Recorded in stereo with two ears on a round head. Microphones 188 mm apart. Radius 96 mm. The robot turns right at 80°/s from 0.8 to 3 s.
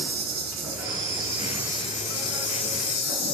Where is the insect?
55° right, 1.0 m; by 3.3 s 120° left, 1.0 m.